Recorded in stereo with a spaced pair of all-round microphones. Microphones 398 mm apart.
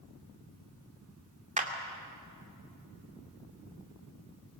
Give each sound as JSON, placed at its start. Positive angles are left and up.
{"t": 1.6, "sound": "a clap", "side_deg": -20, "distance_m": 2.5}